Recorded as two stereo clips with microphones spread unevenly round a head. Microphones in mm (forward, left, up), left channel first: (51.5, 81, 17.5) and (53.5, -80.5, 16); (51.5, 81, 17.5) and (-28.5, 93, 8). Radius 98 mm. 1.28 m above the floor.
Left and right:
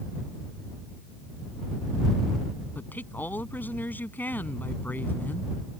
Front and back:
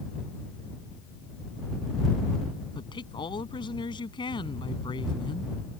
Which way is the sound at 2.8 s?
10° left.